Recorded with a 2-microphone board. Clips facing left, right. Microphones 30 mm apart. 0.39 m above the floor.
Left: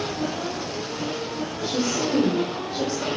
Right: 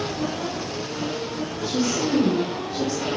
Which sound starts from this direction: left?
A woman speaking, at 1.6 s.